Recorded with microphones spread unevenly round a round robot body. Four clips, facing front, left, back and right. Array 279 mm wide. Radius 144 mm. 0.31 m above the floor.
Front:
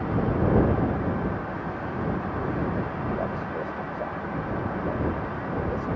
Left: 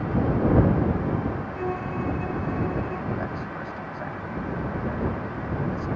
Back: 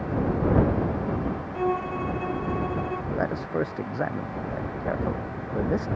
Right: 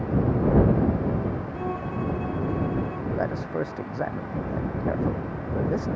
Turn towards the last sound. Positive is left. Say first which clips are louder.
# right 4 dB, back 5 dB
turn(degrees=-155)